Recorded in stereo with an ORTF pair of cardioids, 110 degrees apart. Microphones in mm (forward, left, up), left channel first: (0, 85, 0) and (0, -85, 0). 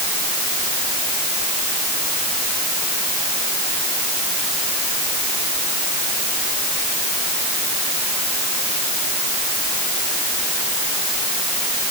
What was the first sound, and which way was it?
Only background noise.